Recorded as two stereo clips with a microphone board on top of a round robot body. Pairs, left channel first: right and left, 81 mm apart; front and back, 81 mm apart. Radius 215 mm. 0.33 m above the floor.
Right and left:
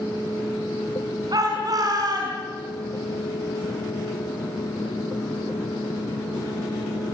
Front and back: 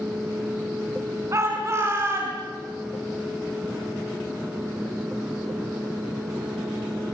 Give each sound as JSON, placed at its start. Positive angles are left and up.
{"t": 1.3, "sound": "a shout", "azimuth_deg": 125, "distance_m": 6.0}